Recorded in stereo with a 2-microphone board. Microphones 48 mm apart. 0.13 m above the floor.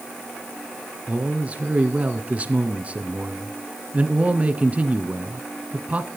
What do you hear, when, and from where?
1.1 s a man speaking: 30° right (ahead or behind), 1.3 m